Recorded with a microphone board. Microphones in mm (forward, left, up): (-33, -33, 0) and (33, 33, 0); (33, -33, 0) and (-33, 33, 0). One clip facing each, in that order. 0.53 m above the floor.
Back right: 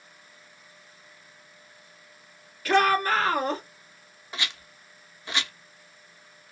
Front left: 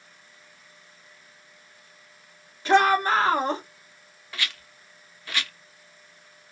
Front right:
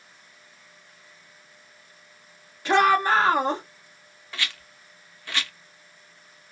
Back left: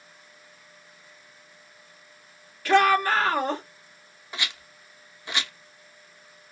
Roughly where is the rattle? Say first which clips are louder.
Even, even; behind.